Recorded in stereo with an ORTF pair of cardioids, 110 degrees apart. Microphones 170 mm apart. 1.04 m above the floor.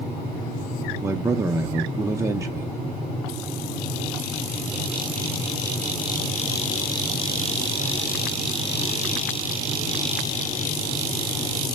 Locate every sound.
1.0 s a man speaking: 15° right, 0.5 m